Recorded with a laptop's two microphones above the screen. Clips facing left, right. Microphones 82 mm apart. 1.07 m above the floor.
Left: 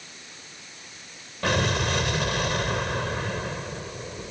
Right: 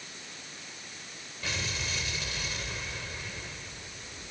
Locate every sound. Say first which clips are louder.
1.4 s an explosion: left 12 dB; 65° left (ahead or behind)